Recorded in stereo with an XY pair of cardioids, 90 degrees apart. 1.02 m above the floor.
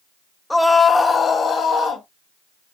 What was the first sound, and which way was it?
A scream, 5° left.